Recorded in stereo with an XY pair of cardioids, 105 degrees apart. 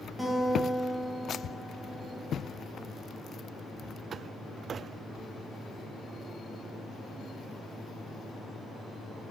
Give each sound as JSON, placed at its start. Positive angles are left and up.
{"t": 0.2, "sound": "a guitar", "azimuth_deg": -10, "distance_m": 1.4}